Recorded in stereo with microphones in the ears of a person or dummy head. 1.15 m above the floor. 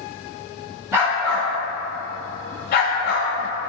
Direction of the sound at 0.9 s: 10° right (ahead or behind).